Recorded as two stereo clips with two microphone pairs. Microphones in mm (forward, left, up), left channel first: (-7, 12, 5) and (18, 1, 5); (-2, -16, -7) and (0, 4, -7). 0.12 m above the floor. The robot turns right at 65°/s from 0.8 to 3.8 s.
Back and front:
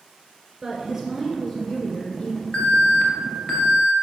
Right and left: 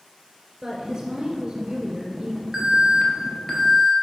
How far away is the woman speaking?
About 1.8 m.